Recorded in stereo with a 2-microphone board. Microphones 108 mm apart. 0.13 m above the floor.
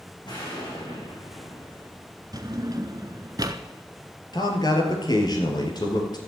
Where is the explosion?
45° left (ahead or behind), 7.5 m.